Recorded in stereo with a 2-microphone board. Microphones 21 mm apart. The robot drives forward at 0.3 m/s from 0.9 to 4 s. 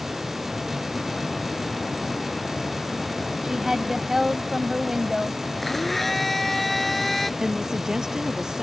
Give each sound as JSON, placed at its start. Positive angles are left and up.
{"t": 3.4, "sound": "a woman speaking", "side_deg": -20}
{"t": 5.6, "sound": "a blender", "side_deg": 5}
{"t": 7.4, "sound": "a woman speaking", "side_deg": -35}